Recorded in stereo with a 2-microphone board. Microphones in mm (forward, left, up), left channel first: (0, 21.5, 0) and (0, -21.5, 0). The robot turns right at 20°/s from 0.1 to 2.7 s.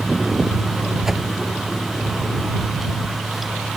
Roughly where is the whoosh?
Centre.